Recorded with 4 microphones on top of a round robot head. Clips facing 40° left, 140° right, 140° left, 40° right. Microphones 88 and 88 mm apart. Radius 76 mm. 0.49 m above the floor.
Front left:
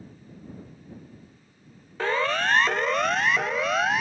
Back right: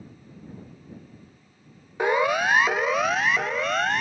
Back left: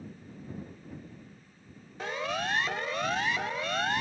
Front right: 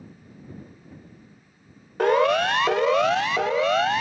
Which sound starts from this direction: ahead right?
A siren, at 2.0 s.